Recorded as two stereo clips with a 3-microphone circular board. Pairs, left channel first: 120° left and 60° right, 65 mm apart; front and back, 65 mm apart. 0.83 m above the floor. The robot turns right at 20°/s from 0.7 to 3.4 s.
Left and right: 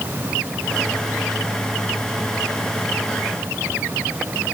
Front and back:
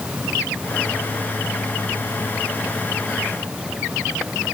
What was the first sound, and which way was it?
Only background noise.